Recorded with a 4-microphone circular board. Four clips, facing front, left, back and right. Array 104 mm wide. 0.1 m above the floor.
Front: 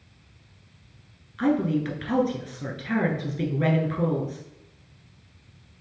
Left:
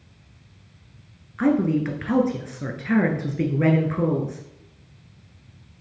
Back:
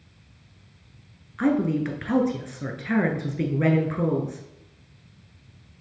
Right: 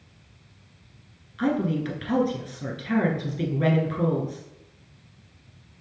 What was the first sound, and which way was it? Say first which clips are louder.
A woman speaking: left 5 dB, back 1 dB; 120° left.